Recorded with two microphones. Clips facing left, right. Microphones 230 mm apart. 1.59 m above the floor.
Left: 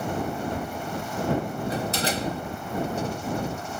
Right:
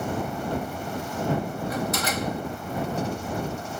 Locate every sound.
1.7 s a door slam: 30° left (ahead or behind)